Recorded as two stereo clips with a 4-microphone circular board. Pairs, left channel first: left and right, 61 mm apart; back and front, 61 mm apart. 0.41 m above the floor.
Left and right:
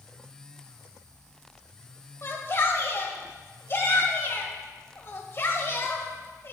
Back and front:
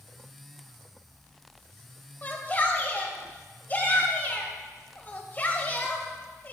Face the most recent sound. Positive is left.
turn(degrees=125)